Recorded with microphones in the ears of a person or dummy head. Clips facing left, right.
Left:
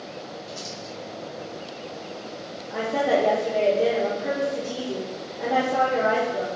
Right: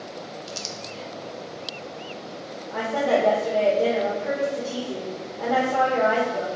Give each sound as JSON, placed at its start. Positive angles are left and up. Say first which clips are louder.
{"t": 0.5, "sound": "crumpling", "louder": "even", "side_deg": -85, "distance_m": 0.8}
{"t": 2.7, "sound": "a woman speaking", "louder": "even", "side_deg": 10, "distance_m": 0.8}